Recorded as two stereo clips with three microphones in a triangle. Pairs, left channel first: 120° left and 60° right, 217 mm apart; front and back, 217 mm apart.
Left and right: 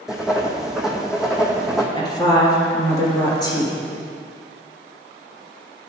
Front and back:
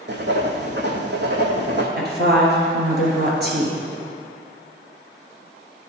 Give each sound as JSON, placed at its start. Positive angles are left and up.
{"t": 0.1, "sound": "writing", "azimuth_deg": -145, "distance_m": 1.0}
{"t": 2.0, "sound": "a woman speaking", "azimuth_deg": -170, "distance_m": 1.8}